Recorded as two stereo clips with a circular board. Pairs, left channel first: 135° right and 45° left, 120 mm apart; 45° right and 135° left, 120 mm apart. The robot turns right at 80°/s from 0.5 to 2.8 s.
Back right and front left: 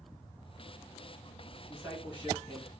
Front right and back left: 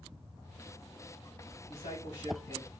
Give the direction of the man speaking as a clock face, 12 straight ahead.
2 o'clock.